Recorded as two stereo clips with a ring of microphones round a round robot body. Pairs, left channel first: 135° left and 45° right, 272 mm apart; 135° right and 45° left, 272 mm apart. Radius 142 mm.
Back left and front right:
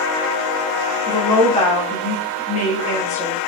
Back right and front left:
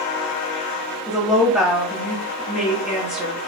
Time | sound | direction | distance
1.1 | a woman speaking | 130° left | 1.4 m